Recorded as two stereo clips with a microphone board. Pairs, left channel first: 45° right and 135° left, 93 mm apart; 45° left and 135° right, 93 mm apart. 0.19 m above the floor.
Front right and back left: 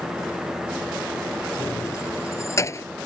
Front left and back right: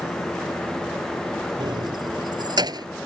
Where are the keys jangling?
100° right.